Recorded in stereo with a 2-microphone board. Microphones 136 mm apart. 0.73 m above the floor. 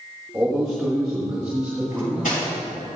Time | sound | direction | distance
0.3 | a man speaking | 5° right (ahead or behind) | 2.5 m
1.9 | cutlery clinking | 85° left | 4 m